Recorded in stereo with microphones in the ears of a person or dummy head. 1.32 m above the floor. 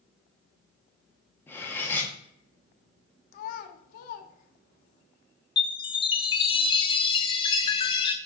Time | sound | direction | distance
1.5 | cutlery clinking | 15° left (ahead or behind) | 1.4 m
3.3 | a child speaking | 55° left (ahead or behind) | 1.1 m
5.6 | a chime | 30° left (ahead or behind) | 0.6 m